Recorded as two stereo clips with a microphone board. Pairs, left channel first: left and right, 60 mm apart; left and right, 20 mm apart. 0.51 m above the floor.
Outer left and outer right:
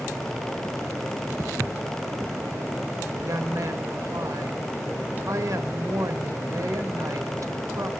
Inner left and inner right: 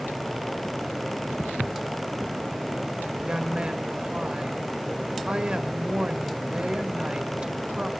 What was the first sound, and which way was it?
Footsteps, 55° right (ahead or behind).